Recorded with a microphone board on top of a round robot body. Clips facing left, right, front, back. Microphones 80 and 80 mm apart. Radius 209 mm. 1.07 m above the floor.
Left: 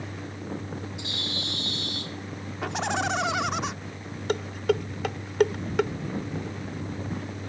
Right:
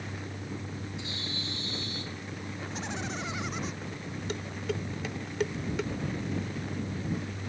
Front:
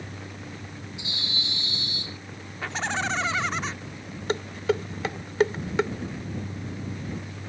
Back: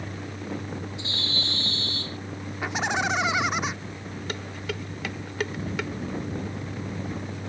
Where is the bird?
75° left.